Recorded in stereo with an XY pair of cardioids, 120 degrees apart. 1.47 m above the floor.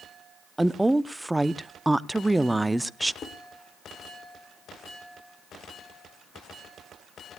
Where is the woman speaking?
10° right, 0.5 m.